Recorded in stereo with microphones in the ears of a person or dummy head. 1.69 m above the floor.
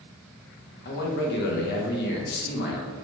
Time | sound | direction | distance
0.8 | a man speaking | 65° left (ahead or behind) | 0.8 m